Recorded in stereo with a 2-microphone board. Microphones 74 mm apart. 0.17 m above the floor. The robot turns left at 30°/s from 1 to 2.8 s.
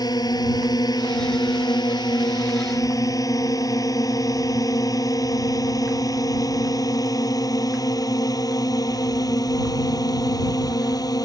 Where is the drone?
60° left (ahead or behind).